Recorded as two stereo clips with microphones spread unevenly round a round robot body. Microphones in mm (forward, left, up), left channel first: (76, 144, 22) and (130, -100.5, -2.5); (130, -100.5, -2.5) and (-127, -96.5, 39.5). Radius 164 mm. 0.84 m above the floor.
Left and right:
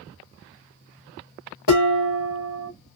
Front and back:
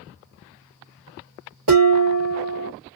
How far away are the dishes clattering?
About 1.3 m.